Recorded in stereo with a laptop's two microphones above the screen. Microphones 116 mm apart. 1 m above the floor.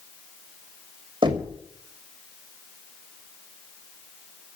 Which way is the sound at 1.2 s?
45° right (ahead or behind).